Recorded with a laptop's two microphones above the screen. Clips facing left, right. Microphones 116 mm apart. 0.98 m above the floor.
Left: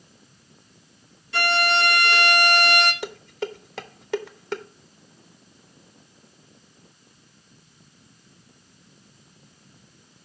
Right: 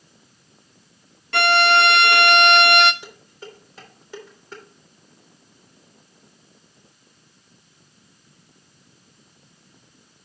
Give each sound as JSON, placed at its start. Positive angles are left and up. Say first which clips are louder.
{"t": 1.3, "sound": "a violin", "louder": "right 6 dB", "side_deg": -65, "distance_m": 0.6}
{"t": 3.0, "sound": "dishes clattering", "louder": "left 11 dB", "side_deg": 80, "distance_m": 0.5}